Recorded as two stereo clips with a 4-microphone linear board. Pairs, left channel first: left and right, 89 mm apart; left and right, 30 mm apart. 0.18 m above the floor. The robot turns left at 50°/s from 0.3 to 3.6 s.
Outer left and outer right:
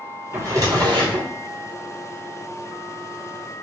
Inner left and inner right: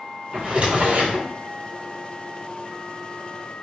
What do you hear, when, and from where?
0.3 s a drawer: 30° right, 1.1 m; by 1.3 s 80° right, 1.1 m